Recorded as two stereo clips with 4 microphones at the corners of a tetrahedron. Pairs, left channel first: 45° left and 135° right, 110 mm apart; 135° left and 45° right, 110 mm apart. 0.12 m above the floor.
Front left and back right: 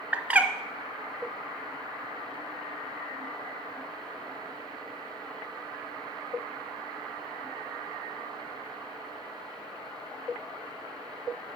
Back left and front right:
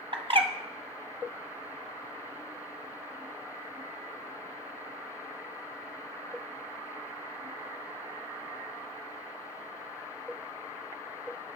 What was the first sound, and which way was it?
A bird, 60° right.